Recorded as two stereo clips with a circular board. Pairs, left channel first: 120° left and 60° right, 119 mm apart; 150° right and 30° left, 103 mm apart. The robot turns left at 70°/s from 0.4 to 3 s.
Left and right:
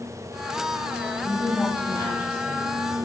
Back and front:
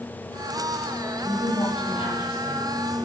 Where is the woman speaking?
125° right, 5 m; by 3.1 s 110° left, 5 m.